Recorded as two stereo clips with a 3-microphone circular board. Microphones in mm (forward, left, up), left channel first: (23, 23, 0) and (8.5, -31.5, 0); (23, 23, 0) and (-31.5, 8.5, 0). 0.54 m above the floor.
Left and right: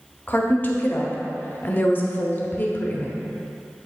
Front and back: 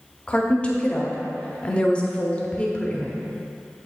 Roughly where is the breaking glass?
No breaking glass in this recording.